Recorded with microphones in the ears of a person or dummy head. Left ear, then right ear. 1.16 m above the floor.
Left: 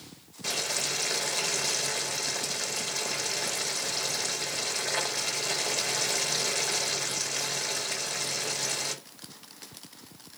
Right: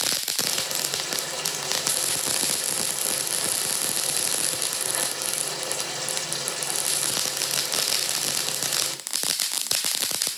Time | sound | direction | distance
0.4 | boiling | 70° left (ahead or behind) | 1.3 m